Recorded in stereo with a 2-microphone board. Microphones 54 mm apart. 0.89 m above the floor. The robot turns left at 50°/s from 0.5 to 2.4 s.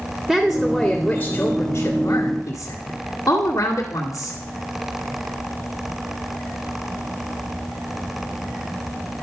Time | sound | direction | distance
0.3 | a woman speaking | 170° right | 1.9 m